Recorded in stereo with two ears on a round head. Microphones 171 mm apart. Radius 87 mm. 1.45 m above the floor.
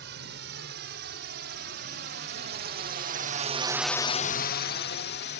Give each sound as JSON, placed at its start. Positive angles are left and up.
{"t": 0.0, "sound": "a drone", "side_deg": -55}